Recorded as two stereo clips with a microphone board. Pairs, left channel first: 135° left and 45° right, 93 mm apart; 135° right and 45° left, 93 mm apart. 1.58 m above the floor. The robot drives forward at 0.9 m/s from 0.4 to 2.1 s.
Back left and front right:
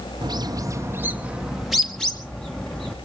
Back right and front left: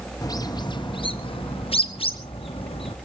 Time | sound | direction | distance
0.2 | a bird | 85° right | 1.2 m